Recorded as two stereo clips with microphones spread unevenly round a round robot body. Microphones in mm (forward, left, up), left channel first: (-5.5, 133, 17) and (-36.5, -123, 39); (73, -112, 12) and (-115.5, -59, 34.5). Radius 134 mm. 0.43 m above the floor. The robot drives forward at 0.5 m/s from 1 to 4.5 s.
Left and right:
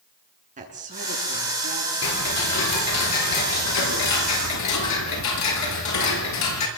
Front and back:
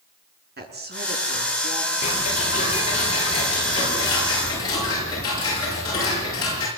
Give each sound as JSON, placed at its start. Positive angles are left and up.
{"t": 0.6, "sound": "a woman speaking", "azimuth_deg": -160, "distance_m": 7.0}
{"t": 2.0, "sound": "ticking", "azimuth_deg": 50, "distance_m": 6.5}